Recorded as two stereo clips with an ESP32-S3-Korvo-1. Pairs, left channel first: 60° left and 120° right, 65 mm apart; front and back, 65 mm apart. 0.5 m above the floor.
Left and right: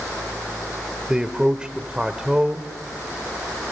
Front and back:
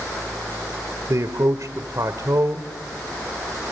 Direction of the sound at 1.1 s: 165° left.